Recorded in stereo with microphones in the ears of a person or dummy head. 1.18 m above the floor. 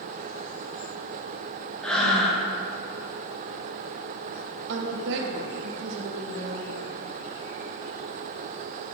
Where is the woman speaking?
60° right (ahead or behind), 1.0 m.